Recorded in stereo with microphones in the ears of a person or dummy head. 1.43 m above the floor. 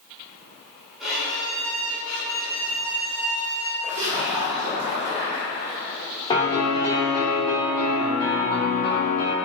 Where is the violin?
5° right (ahead or behind), 2 m.